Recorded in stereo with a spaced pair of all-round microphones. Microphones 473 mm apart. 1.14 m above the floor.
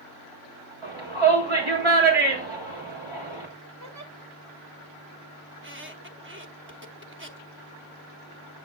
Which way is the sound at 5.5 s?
25° right (ahead or behind).